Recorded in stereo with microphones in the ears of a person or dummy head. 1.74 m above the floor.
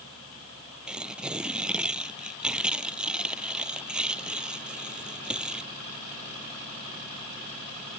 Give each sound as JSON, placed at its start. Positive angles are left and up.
{"t": 0.9, "sound": "tearing paper", "side_deg": -5}